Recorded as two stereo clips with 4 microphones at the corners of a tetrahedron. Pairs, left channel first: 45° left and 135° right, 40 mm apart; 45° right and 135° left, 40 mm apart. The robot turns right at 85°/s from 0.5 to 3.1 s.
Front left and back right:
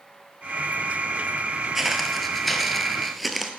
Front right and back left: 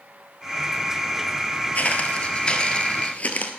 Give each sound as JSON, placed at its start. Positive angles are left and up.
{"t": 1.8, "sound": "footsteps", "azimuth_deg": -60, "distance_m": 1.0}